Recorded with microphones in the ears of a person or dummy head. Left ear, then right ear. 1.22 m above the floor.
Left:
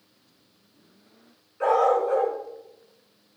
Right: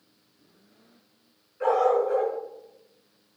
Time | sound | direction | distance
1.6 | a dog barking | 20° left (ahead or behind) | 5 m